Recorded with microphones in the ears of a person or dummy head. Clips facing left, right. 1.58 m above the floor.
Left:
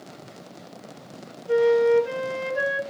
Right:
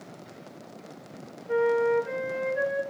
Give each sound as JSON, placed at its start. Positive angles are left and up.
{"t": 1.5, "sound": "a flute", "side_deg": 50, "distance_m": 1.4}